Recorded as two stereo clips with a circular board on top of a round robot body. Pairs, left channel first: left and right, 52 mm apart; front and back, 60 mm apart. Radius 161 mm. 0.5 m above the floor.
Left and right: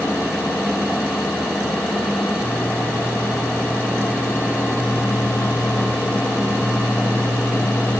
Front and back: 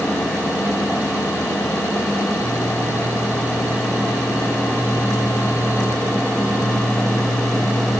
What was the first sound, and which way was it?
Only background noise.